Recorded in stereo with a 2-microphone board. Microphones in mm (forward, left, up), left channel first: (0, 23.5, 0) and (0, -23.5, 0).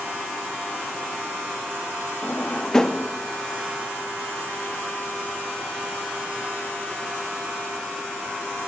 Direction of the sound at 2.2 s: 15° left (ahead or behind).